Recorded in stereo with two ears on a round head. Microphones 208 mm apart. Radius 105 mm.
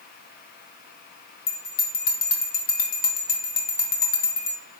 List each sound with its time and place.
1.5 s a bell: 40° left (ahead or behind), 0.6 m